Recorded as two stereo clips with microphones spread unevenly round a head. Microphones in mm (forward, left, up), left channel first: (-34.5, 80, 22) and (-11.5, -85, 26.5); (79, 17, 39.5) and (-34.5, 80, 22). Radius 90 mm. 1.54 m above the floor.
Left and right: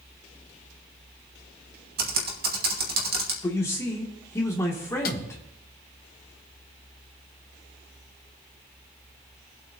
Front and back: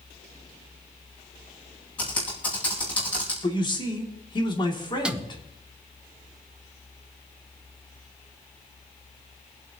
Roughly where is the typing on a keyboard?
Right.